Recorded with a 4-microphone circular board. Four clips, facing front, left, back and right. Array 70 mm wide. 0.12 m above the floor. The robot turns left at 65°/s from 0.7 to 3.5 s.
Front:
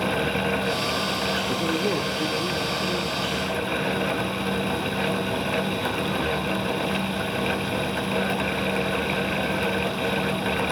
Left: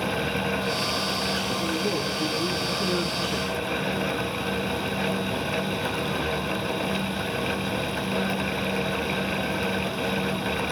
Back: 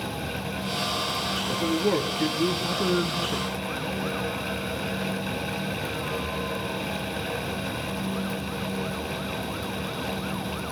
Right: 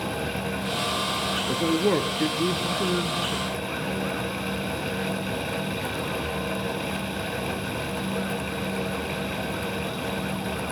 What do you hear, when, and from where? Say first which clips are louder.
1.5 s a man speaking: right 8 dB, back 4 dB; 65° right, 2 m; by 3.5 s 165° left, 2 m